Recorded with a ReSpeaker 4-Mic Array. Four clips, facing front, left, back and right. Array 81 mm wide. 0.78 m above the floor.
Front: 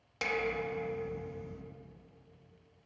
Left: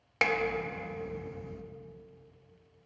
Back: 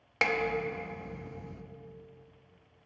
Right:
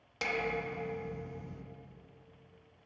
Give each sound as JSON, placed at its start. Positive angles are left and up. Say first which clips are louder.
{"t": 0.2, "sound": "dishes clattering", "louder": "left 5 dB, back 4 dB", "azimuth_deg": 135, "distance_m": 0.6}